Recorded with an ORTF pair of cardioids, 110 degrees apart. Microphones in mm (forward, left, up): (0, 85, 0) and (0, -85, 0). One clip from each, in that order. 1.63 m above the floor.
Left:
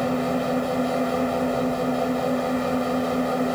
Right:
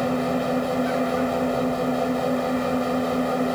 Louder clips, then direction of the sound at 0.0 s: Even; 5° right.